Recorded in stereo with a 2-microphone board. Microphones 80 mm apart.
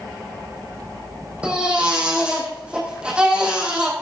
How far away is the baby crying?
About 5 m.